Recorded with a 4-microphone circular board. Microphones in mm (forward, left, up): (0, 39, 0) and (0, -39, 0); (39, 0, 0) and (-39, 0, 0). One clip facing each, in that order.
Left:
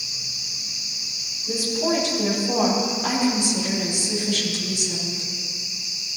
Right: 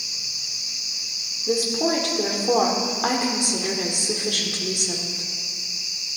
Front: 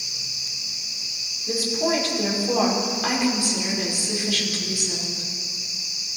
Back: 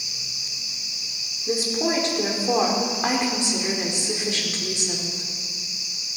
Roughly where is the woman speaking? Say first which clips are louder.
Right 1 dB, even; behind right.